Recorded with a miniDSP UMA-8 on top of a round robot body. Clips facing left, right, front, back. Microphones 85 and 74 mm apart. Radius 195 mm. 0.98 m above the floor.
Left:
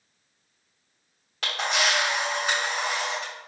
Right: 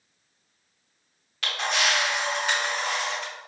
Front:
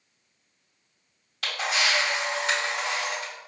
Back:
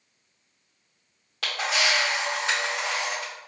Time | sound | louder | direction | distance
1.4 | a camera shutter | even, back 1 dB | 145° left | 0.7 m